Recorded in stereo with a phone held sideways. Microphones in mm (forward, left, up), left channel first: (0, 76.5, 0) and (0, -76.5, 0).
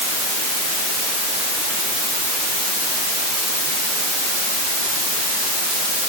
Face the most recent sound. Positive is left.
No sound to turn to.